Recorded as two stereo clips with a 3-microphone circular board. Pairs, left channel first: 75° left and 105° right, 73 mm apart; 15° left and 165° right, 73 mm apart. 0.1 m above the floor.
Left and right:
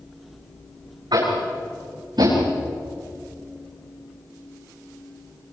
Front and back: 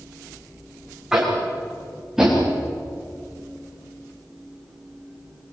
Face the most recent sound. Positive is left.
turn(degrees=-80)